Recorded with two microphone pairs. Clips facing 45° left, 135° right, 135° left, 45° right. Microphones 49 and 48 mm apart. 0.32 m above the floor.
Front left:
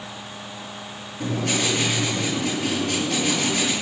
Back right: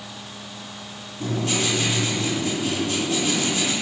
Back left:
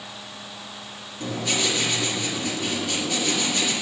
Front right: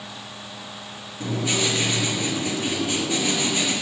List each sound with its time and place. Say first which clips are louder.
1.2 s writing: even, front right 1 dB; 30° left, 6.5 m